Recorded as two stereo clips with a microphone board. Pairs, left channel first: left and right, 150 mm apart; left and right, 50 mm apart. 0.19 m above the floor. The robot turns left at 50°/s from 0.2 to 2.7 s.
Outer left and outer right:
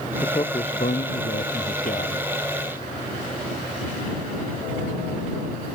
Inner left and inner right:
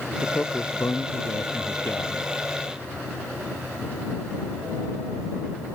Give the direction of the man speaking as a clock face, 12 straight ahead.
7 o'clock.